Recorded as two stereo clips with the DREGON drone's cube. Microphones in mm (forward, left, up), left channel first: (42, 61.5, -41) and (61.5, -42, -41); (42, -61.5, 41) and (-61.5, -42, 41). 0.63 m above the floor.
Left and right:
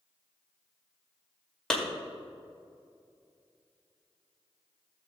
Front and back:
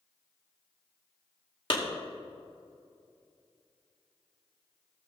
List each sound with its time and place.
1.7 s a clap: 20° left, 2 m